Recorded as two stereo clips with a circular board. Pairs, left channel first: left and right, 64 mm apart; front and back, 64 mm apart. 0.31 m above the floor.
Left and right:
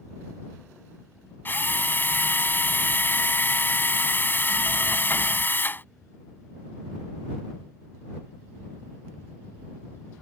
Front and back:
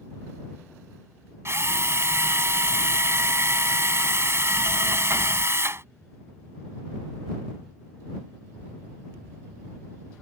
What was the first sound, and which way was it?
A drill, 140° left.